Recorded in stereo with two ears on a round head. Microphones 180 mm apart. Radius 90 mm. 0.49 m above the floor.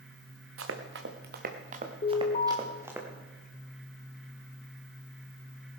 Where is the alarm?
35° left (ahead or behind), 2.5 m.